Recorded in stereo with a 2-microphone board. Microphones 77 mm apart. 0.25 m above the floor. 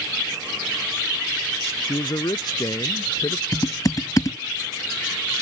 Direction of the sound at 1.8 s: 65° left (ahead or behind).